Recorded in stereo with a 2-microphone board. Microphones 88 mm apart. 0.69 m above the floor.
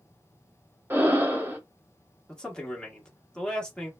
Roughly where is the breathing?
Right.